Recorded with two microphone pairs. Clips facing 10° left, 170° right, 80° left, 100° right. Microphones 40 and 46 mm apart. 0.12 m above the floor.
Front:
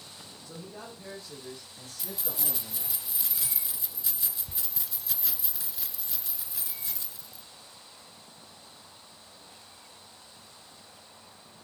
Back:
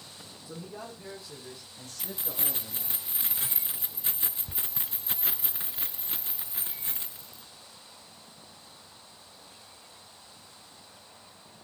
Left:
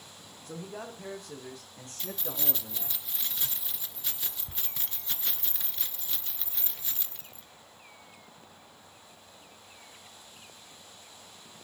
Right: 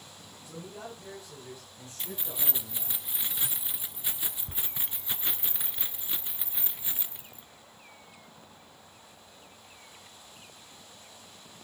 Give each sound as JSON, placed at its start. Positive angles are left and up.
{"t": 0.5, "sound": "a man speaking", "azimuth_deg": 110, "distance_m": 6.0}
{"t": 2.0, "sound": "keys jangling", "azimuth_deg": -155, "distance_m": 1.0}